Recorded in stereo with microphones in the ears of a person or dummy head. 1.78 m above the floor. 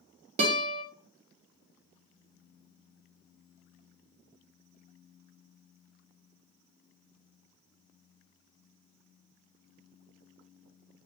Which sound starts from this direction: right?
A guitar, at 0.4 s.